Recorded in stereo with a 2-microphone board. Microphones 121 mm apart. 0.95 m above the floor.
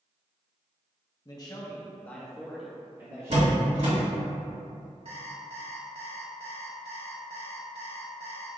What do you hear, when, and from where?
1.2 s a man speaking: 35° left (ahead or behind), 1.0 m; by 4.3 s 40° right (ahead or behind), 1.3 m
3.3 s a door slam: 70° right (ahead or behind), 1.7 m
5.0 s an alarm clock: 55° right (ahead or behind), 0.9 m